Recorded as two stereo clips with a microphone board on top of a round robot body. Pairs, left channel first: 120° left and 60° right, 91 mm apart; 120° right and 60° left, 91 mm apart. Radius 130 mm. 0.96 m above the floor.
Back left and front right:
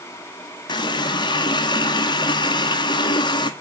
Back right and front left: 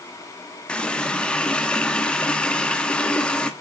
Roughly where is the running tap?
Behind.